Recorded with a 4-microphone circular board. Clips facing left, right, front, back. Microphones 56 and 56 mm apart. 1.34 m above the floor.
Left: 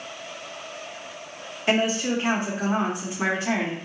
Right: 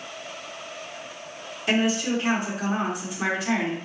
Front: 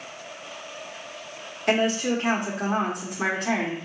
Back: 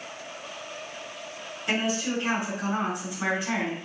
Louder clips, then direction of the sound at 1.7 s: Left 1 dB, front 5 dB; 30° left.